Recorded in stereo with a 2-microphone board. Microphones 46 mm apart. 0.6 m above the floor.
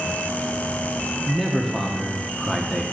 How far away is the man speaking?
About 1.0 m.